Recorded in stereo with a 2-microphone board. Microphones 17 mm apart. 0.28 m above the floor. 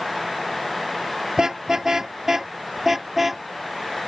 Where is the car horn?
40° right (ahead or behind); by 3.4 s 15° right (ahead or behind).